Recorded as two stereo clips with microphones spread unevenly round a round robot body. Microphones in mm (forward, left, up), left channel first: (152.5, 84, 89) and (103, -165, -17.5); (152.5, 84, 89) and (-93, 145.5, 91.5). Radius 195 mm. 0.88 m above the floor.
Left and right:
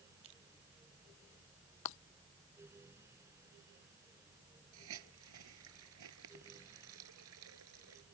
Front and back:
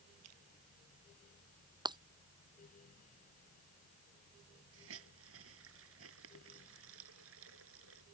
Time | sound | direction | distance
0.2 | crushing | 155° right | ?
1.9 | breaking glass | 95° left | ?
4.7 | a hiss | 145° right | ?